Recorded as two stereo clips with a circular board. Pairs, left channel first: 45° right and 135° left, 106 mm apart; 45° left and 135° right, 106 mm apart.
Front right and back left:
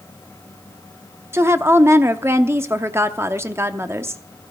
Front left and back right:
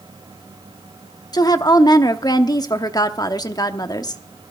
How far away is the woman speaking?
About 0.8 m.